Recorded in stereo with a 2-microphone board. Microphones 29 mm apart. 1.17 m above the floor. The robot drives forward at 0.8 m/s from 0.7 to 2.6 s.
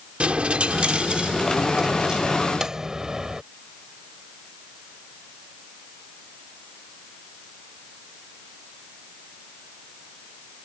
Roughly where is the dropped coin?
Right.